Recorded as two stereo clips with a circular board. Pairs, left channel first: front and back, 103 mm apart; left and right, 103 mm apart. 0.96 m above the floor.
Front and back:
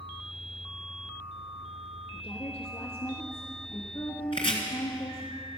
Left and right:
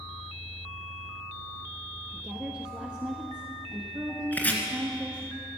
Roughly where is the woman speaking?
Ahead.